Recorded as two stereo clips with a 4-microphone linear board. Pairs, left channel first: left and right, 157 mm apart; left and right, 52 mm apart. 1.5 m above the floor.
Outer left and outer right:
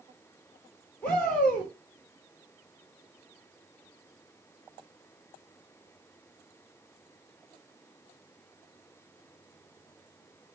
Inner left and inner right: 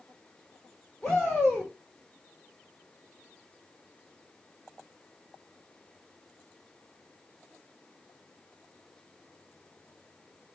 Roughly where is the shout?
Centre.